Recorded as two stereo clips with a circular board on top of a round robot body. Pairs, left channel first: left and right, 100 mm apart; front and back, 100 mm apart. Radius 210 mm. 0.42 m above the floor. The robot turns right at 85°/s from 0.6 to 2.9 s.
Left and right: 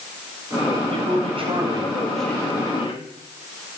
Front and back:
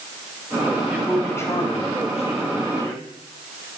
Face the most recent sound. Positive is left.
turn(degrees=65)